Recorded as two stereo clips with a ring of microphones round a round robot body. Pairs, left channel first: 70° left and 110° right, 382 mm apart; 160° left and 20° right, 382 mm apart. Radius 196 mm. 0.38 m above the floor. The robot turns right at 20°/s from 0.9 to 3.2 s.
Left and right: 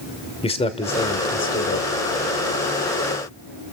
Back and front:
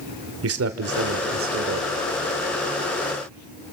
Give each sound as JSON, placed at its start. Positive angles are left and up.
{"t": 0.4, "sound": "a man speaking", "azimuth_deg": 0, "distance_m": 1.5}